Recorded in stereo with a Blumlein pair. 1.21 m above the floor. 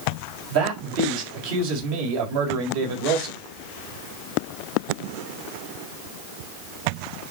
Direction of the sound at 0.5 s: 50° right.